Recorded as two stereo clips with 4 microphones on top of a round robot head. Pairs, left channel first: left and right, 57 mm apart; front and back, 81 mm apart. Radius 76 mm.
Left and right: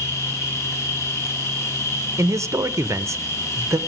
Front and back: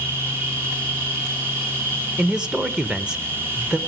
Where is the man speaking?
105° right, 0.5 m.